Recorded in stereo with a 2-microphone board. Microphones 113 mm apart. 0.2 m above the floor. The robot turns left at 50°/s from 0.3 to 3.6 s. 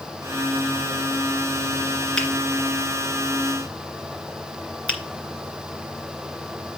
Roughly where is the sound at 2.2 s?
Centre.